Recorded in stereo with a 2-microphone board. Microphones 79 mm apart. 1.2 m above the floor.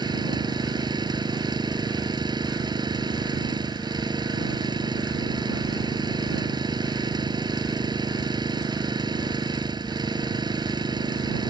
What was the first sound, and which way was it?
An engine running, 65° right (ahead or behind).